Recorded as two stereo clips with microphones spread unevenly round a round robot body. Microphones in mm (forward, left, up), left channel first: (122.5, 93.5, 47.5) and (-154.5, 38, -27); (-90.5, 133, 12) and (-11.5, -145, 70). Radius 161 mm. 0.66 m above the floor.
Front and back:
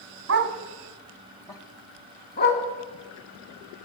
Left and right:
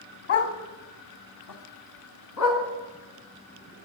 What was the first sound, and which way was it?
A dog barking, 145° left.